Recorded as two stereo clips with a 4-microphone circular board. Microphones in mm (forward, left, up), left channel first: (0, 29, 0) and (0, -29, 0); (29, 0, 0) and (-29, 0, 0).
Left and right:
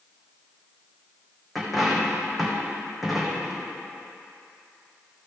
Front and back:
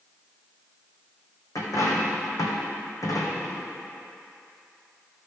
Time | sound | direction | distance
1.6 | a dropped coin | straight ahead | 2 m